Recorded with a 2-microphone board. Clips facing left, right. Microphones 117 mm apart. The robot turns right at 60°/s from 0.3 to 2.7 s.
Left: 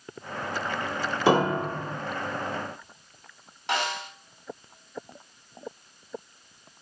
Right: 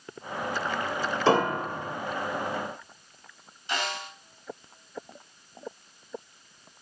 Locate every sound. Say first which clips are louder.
1.3 s a piano: left 2 dB; 10° left, 2 m; by 2.0 s 55° left, 2 m
3.7 s a snare drum: left 3 dB; 85° left, 3.5 m